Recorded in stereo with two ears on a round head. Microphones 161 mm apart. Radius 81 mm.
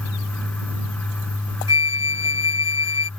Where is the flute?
70° left (ahead or behind).